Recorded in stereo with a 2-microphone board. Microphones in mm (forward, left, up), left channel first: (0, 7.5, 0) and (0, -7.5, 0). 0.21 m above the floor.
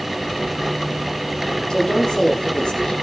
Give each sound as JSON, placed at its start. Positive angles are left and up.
{"t": 1.7, "sound": "a woman speaking", "side_deg": 70, "distance_m": 8.0}